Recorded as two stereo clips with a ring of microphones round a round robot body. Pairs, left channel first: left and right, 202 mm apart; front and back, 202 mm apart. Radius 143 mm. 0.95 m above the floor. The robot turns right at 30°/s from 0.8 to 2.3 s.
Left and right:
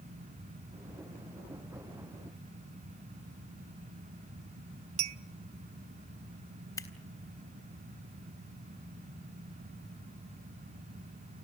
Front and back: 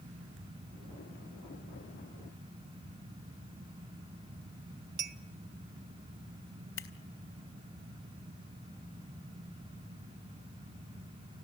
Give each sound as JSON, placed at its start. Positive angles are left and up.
{"t": 5.0, "sound": "a clink", "azimuth_deg": -125, "distance_m": 0.6}
{"t": 6.8, "sound": "scissors", "azimuth_deg": 15, "distance_m": 3.5}